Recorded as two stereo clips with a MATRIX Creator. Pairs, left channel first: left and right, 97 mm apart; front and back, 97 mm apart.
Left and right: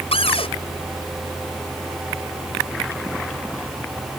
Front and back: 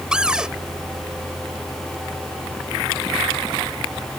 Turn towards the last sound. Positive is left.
turn(degrees=95)